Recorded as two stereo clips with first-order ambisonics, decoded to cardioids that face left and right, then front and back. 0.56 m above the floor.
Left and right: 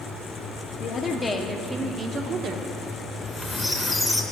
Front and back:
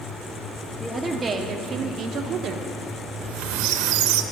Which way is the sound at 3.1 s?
175° left.